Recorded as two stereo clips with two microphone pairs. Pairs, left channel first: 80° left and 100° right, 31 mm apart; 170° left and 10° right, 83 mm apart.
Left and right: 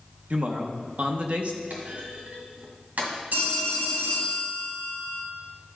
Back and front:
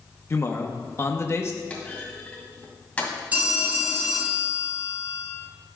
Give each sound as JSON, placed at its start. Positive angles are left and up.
{"t": 0.3, "sound": "a man speaking", "azimuth_deg": -140, "distance_m": 0.9}
{"t": 1.7, "sound": "a clunk", "azimuth_deg": -115, "distance_m": 2.0}
{"t": 3.3, "sound": "a phone ringing", "azimuth_deg": -85, "distance_m": 1.9}